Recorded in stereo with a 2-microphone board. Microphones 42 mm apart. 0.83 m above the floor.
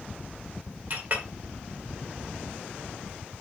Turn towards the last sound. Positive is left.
turn(degrees=-45)  # may be behind; listen again after turning